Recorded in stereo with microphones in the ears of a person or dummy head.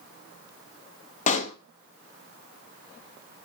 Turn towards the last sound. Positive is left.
turn(degrees=40)  # may be behind; listen again after turning